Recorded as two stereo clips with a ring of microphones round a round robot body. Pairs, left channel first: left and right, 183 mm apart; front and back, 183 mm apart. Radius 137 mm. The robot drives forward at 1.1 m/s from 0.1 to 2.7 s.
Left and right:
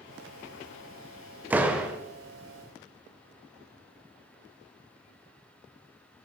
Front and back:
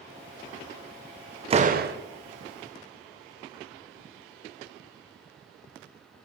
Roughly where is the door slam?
Behind.